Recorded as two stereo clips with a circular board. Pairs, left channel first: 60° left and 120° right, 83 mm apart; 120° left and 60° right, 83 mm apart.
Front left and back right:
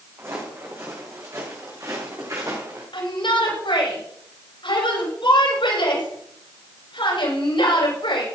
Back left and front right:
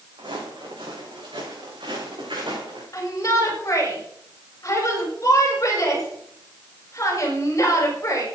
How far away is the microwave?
I don't hear a microwave.